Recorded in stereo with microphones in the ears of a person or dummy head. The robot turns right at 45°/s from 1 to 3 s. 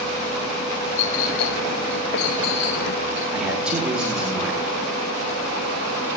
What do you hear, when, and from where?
1.0 s a clink: 40° left (ahead or behind), 5 m; by 3.2 s 50° left (ahead or behind), 5 m
3.3 s a man speaking: 5° right (ahead or behind), 2.5 m